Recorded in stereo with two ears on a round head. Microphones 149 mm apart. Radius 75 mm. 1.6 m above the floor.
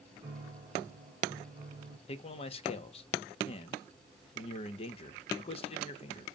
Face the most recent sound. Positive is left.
turn(degrees=35)  # may be behind; listen again after turning